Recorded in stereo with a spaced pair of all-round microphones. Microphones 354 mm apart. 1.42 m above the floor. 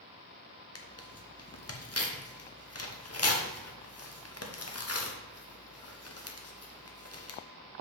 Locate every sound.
0.8 s tearing paper: 40° left (ahead or behind), 0.9 m